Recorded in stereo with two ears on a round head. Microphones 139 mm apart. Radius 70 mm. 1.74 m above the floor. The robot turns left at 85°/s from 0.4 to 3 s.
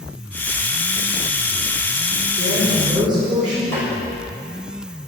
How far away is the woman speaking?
About 5 m.